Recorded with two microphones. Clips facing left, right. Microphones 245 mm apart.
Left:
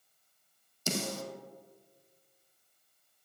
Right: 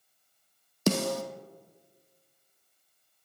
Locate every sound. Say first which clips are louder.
0.9 s a snare drum: right 9 dB; 65° right (ahead or behind), 1.0 m